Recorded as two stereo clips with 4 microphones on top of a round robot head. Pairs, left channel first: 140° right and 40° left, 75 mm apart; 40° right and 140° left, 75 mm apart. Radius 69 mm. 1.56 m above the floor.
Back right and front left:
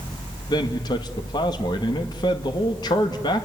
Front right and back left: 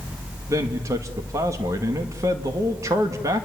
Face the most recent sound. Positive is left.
turn(degrees=-170)